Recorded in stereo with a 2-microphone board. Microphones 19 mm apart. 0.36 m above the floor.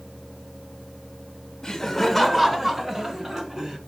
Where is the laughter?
20° left (ahead or behind), 1.1 m; by 3.8 s 30° right (ahead or behind), 2.5 m.